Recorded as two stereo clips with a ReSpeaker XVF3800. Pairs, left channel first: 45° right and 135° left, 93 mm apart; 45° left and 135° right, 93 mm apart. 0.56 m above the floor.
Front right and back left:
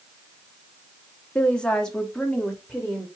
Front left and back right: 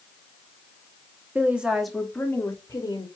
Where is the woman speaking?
100° right, 0.8 m; by 3.1 s 50° left, 1.0 m.